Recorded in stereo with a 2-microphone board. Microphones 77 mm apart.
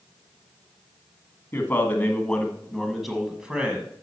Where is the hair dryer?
I don't hear a hair dryer.